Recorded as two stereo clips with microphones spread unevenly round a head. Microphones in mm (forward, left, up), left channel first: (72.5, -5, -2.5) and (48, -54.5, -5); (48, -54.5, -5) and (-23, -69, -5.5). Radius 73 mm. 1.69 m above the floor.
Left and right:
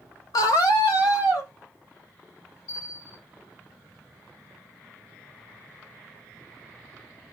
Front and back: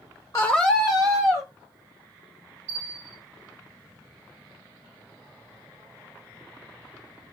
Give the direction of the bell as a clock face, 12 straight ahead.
8 o'clock.